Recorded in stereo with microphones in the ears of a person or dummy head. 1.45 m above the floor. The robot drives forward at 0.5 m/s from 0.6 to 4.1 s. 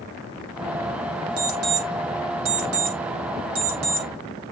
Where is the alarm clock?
55° right (ahead or behind), 2 m; by 4.1 s 65° right (ahead or behind), 1.8 m.